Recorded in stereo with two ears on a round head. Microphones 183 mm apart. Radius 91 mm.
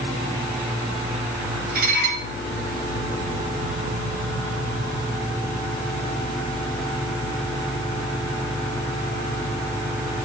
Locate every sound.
1.8 s dishes clattering: 50° right (ahead or behind), 4.5 m